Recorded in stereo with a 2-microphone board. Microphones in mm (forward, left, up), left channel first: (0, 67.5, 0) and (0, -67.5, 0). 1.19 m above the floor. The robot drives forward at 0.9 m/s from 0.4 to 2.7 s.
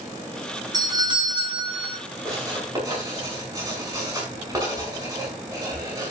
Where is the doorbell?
30° right (ahead or behind), 2 m; by 2.0 s 40° right (ahead or behind), 1.5 m.